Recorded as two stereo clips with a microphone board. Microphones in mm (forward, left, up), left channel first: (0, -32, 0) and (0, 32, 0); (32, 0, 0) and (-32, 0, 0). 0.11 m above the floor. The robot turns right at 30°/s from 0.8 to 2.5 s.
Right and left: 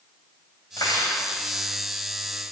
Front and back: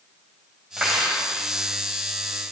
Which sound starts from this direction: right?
Cutlery clinking, at 0.8 s.